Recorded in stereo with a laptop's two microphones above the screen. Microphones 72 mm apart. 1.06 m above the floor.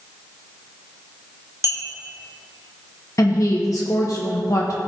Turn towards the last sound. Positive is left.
turn(degrees=45)  # may be behind; listen again after turning